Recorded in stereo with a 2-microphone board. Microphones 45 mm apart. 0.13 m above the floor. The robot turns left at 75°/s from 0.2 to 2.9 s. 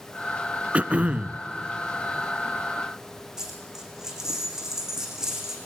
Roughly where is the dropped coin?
Centre.